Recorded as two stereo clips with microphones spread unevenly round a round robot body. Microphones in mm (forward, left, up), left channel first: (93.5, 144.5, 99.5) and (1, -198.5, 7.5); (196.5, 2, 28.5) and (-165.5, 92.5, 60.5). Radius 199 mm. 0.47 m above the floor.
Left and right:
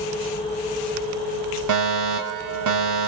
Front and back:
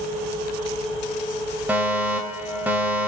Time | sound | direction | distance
1.7 | a fire alarm | 105° right | 5 m